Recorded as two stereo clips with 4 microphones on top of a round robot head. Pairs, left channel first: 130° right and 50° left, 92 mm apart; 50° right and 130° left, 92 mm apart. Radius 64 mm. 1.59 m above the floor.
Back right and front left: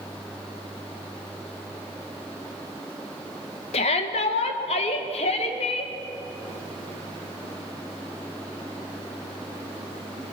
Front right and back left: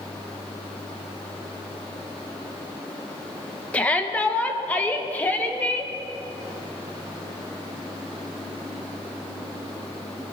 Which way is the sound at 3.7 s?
130° right.